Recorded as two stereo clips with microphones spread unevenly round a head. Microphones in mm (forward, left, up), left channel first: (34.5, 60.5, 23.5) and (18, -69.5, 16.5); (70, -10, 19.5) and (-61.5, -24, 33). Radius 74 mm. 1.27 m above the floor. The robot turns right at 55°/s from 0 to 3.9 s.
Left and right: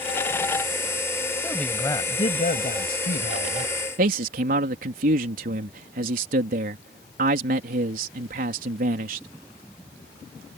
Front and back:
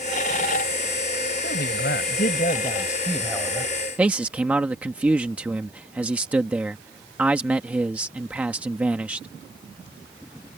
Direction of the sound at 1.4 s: 5° right.